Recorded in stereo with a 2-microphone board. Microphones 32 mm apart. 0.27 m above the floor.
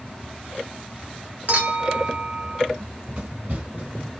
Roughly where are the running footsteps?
Right.